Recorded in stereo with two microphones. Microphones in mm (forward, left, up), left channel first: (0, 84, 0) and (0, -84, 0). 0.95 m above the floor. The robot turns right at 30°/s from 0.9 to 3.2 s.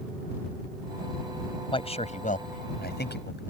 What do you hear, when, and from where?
1.7 s a man speaking: 30° left (ahead or behind); by 3.4 s 75° left (ahead or behind)